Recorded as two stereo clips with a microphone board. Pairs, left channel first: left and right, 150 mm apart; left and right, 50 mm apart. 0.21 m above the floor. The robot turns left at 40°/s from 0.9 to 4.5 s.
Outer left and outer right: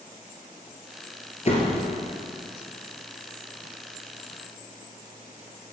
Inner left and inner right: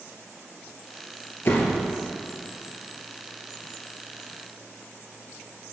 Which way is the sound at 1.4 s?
45° left (ahead or behind).